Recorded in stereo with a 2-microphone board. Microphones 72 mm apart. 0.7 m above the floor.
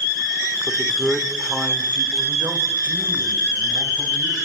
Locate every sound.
0.7 s a man speaking: 10° left (ahead or behind), 2.5 m; by 4.4 s 45° right (ahead or behind), 5.5 m